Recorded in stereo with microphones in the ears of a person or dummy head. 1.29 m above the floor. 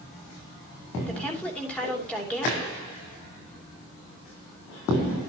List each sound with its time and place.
1.1 s a woman speaking: 10° left (ahead or behind), 3 m